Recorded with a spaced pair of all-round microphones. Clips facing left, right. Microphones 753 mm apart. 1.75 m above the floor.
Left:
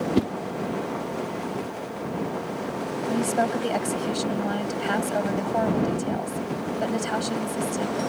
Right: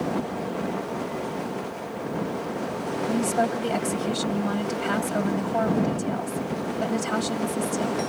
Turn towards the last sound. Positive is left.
turn(degrees=-40)  # may be behind; listen again after turning